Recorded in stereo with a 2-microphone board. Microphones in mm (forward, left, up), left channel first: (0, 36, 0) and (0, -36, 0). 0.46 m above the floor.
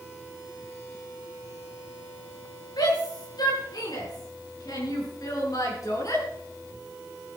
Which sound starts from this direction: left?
A shout, at 2.8 s.